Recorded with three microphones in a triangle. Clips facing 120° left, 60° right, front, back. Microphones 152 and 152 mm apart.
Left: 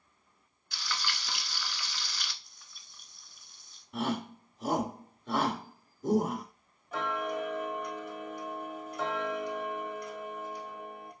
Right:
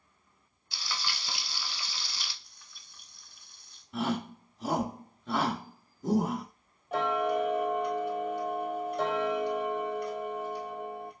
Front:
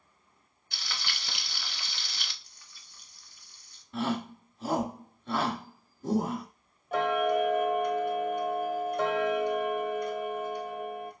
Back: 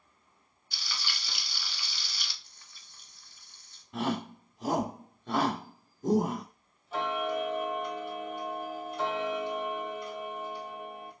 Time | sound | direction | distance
0.7 | frying | straight ahead | 0.7 m
2.4 | frying | 155° right | 1.1 m
3.9 | a shout | 150° right | 1.0 m
6.9 | ticking | 35° right | 1.4 m